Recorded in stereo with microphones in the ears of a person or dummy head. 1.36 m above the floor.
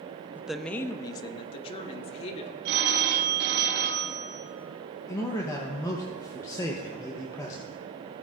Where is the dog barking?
No dog barking in this recording.